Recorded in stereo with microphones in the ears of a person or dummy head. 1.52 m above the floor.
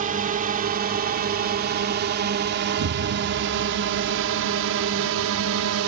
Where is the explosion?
60° right (ahead or behind).